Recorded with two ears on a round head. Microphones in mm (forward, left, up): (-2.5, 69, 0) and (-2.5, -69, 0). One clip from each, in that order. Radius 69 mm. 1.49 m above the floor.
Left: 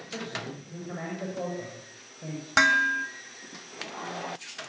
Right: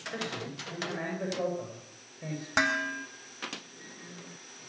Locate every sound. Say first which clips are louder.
0.1 s a man speaking: left 4 dB; 85° right, 8.5 m
2.6 s dishes clattering: left 7 dB; 20° left (ahead or behind), 1.7 m